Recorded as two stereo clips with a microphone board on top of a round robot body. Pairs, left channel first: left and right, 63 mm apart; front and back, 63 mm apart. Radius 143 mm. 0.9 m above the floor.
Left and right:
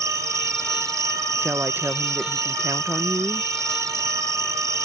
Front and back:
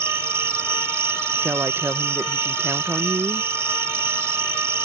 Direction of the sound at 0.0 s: 130° right.